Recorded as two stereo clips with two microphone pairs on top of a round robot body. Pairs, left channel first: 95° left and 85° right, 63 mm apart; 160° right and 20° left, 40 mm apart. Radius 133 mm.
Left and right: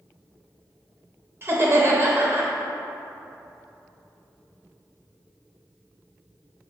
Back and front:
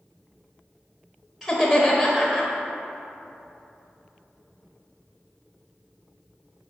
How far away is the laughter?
About 0.9 m.